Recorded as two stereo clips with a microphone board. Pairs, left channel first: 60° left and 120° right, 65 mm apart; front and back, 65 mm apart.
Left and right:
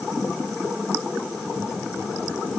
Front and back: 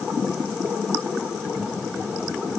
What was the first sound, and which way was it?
Only background noise.